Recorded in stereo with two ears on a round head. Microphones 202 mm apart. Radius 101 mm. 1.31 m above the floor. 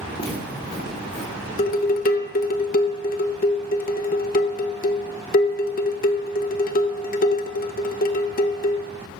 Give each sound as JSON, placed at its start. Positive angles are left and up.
{"t": 0.2, "sound": "footsteps", "side_deg": 25, "distance_m": 4.5}
{"t": 1.6, "sound": "dishes clattering", "side_deg": 40, "distance_m": 0.7}